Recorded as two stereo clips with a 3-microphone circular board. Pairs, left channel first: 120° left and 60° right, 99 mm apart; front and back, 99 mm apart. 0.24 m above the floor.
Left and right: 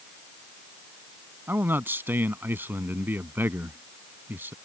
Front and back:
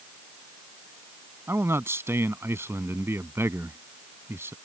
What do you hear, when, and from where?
1.5 s a man speaking: 125° right